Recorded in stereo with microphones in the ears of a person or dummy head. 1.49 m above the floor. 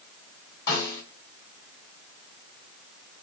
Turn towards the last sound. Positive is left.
turn(degrees=75)  # may be behind; listen again after turning